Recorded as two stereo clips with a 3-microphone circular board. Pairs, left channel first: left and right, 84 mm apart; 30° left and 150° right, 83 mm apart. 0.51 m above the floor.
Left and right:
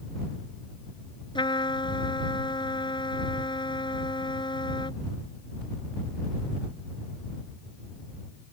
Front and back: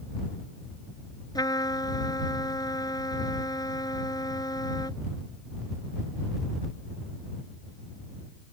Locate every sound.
1.4 s a trumpet: 70° left